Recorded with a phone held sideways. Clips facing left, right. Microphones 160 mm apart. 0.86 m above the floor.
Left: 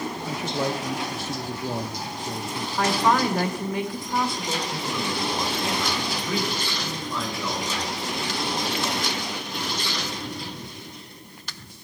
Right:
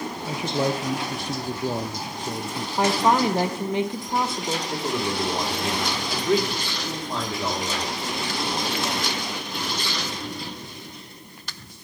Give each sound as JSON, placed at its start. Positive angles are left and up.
{"t": 0.2, "sound": "a man speaking", "side_deg": -15, "distance_m": 0.5}
{"t": 2.8, "sound": "a woman speaking", "side_deg": -25, "distance_m": 0.9}
{"t": 4.7, "sound": "a man speaking", "side_deg": -80, "distance_m": 2.5}